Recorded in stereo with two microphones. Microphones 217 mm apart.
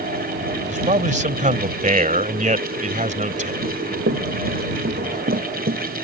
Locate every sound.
0.6 s a man speaking: 35° right (ahead or behind)
3.6 s running footsteps: 75° right (ahead or behind); by 5.8 s 55° right (ahead or behind)